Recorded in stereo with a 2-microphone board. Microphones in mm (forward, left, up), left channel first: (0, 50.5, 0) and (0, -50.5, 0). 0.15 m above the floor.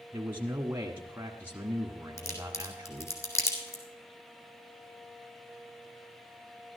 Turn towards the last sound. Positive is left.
turn(degrees=25)  # may be behind; listen again after turning